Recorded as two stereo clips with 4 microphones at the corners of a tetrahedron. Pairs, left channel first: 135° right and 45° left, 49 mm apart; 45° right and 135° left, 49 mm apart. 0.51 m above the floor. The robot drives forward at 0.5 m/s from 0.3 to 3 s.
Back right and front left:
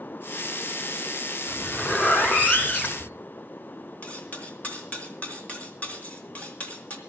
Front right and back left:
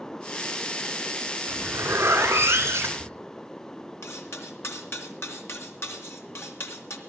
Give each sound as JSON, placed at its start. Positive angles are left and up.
{"t": 1.5, "sound": "a zipper", "azimuth_deg": 170, "distance_m": 2.0}
{"t": 4.0, "sound": "cutlery clinking", "azimuth_deg": -75, "distance_m": 2.5}